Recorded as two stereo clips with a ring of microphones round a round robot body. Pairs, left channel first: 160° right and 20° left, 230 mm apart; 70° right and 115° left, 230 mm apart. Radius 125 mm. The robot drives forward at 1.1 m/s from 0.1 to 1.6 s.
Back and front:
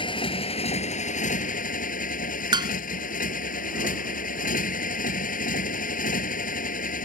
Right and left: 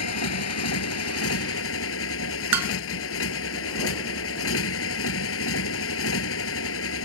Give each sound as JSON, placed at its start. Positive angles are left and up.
{"t": 0.0, "sound": "a motorcycle", "azimuth_deg": -85}
{"t": 2.5, "sound": "dishes clattering", "azimuth_deg": 95}